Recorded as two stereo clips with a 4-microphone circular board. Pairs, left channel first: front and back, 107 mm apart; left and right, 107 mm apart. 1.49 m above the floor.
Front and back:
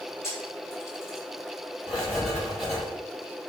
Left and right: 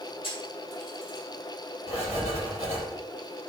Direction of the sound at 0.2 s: 65° left.